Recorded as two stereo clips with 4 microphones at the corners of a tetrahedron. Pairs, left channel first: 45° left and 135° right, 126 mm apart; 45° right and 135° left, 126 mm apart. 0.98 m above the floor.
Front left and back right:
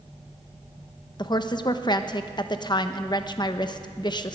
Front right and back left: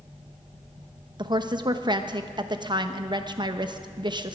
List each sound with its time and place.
1.2 s a woman speaking: 90° left, 0.9 m